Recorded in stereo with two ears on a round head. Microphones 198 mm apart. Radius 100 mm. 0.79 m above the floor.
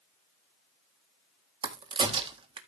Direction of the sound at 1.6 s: 20° right (ahead or behind).